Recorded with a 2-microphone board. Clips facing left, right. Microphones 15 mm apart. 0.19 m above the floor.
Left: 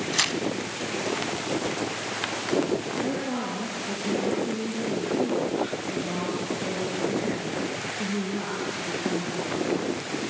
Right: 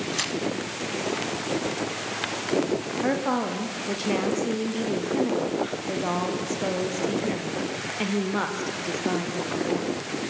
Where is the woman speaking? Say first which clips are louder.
Right 4 dB; 55° right (ahead or behind), 4 m.